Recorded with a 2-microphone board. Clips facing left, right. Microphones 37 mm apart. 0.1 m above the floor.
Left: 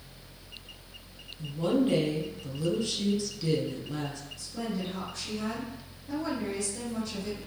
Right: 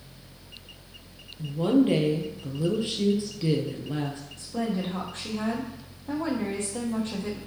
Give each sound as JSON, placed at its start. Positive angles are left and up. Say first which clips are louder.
{"t": 1.4, "sound": "a woman speaking", "louder": "right 5 dB", "side_deg": -25, "distance_m": 1.9}
{"t": 4.4, "sound": "a woman speaking", "louder": "right 5 dB", "side_deg": -60, "distance_m": 3.5}